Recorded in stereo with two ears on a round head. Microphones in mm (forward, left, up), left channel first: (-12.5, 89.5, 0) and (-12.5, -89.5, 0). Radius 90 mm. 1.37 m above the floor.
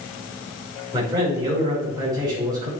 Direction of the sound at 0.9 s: 20° right (ahead or behind).